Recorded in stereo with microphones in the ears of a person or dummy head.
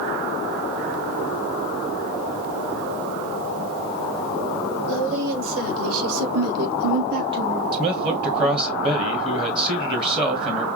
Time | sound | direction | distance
4.9 | a woman speaking | 70° right (ahead or behind) | 2.5 m
7.7 | a man speaking | 25° right (ahead or behind) | 1.3 m